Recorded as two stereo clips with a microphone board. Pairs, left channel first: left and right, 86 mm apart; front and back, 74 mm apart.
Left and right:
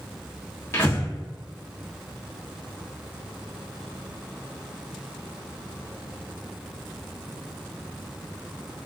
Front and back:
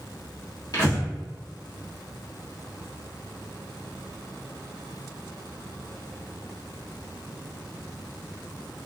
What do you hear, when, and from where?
0.7 s breathing: 30° left, 1.7 m